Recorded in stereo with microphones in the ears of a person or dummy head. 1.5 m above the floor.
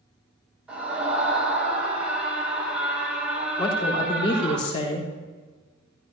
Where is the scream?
10° right (ahead or behind), 6.5 m.